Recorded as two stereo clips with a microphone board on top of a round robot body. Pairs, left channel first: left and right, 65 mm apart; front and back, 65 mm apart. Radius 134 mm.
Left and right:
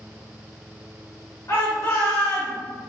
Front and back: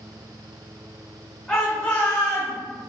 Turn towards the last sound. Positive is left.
turn(degrees=45)